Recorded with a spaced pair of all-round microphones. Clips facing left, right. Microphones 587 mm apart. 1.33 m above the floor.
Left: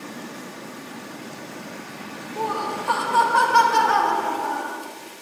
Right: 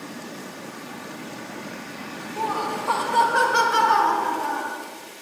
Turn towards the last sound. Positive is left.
turn(degrees=0)  # may be behind; listen again after turning